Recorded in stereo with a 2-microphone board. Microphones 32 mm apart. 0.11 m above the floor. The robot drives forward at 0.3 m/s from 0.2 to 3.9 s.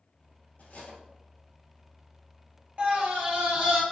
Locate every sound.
0.6 s cutlery clinking: 50° left (ahead or behind), 1.4 m
2.8 s a scream: 45° right (ahead or behind), 1.5 m; by 3.8 s 40° right (ahead or behind), 1.5 m